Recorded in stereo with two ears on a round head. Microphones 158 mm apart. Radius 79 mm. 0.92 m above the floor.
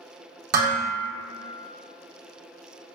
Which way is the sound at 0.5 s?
60° right (ahead or behind).